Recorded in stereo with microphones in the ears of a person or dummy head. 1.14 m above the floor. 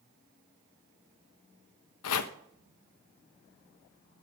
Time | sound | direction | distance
2.0 | chopping | 85° left | 0.8 m